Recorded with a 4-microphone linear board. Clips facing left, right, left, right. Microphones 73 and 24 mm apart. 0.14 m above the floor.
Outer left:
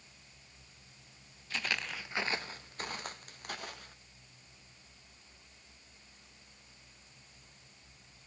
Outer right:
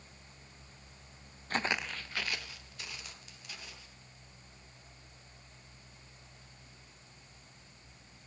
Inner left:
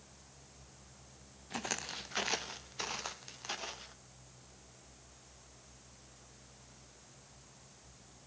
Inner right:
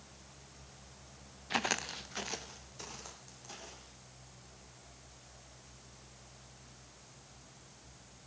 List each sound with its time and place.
1.5 s footsteps: 50° right (ahead or behind), 0.6 m; by 3.9 s 55° left (ahead or behind), 3 m